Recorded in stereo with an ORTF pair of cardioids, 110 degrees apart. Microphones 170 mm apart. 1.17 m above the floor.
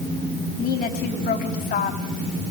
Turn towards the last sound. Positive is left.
turn(degrees=60)